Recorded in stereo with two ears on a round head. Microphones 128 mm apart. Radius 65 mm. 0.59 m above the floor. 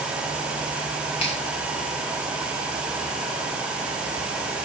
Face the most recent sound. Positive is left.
turn(degrees=40)  # may be behind; listen again after turning